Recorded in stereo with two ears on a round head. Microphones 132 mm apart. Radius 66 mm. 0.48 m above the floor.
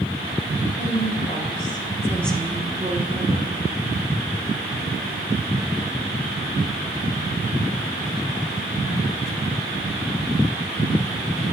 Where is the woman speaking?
45° left (ahead or behind), 2.5 m; by 3.6 s 55° right (ahead or behind), 1.7 m.